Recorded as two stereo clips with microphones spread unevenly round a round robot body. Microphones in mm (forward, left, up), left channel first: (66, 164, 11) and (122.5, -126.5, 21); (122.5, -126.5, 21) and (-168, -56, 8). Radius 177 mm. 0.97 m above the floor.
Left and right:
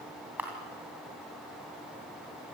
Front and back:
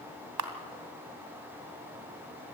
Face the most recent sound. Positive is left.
turn(degrees=-165)